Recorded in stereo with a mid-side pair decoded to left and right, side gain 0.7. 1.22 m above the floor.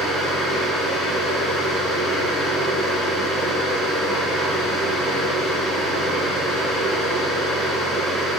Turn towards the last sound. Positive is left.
turn(degrees=-25)